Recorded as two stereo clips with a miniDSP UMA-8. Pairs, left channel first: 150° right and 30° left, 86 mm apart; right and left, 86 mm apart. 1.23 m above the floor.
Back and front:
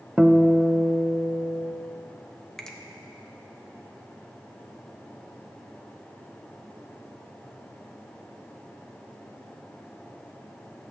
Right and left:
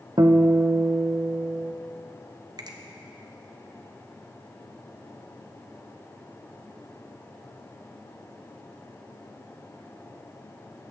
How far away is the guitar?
About 0.7 m.